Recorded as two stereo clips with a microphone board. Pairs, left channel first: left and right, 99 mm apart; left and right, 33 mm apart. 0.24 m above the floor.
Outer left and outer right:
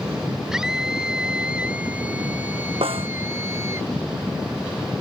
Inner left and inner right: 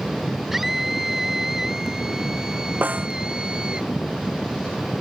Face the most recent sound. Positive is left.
turn(degrees=-70)  # may be behind; listen again after turning